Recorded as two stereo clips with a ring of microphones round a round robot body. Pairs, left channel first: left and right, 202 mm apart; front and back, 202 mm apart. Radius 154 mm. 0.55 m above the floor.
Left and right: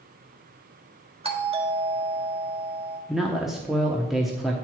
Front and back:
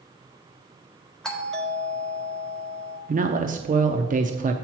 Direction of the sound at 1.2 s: 85° right.